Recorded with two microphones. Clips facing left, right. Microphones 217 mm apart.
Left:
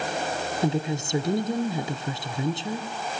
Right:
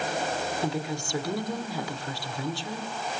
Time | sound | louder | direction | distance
0.6 | a woman speaking | left 4 dB | 20° left (ahead or behind) | 1.3 m